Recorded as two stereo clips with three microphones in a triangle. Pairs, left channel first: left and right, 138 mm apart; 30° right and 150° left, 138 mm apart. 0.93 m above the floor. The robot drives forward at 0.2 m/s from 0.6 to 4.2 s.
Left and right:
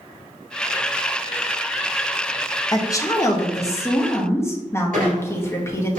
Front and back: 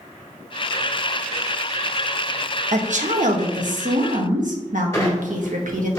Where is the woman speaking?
150° left, 0.7 m; by 5.9 s 160° left, 1.0 m.